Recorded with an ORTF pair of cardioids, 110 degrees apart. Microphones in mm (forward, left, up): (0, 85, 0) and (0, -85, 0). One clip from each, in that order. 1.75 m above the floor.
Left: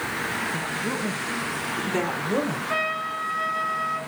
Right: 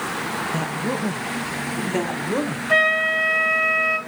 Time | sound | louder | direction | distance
0.5 | a woman speaking | right 2 dB | 45° right | 1.2 m
2.7 | a flute | right 12 dB | 55° right | 2.5 m